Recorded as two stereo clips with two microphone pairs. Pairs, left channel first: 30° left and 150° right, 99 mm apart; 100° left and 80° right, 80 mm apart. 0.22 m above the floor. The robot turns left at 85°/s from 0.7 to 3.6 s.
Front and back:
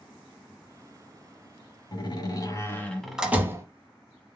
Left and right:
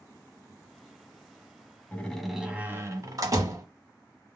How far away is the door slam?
About 1.0 m.